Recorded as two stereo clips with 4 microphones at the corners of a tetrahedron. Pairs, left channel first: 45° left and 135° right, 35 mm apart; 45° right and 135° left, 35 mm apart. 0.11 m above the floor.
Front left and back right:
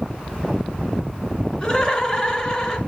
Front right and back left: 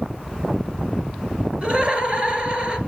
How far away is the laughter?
About 1.9 m.